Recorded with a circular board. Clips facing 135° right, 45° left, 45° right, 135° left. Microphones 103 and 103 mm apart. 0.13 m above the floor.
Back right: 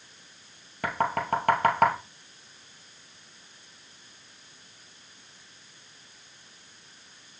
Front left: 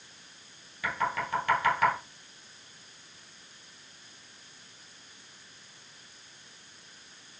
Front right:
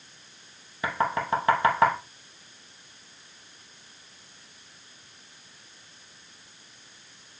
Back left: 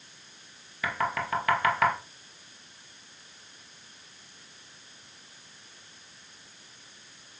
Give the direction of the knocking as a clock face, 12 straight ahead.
3 o'clock.